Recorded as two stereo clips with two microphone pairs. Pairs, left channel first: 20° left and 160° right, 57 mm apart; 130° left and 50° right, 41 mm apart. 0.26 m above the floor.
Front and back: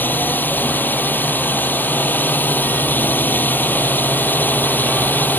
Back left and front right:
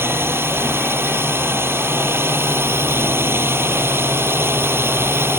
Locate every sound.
0.0 s a drone: 40° right